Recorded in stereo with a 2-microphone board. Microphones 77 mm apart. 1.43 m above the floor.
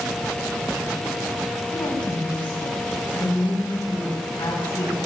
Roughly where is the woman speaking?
Left.